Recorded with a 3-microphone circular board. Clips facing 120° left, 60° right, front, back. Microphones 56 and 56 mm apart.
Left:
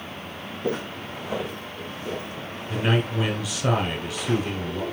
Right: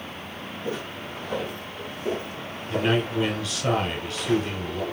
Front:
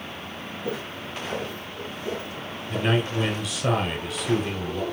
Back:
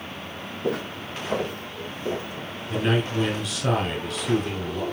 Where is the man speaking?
80° left, 1.5 m.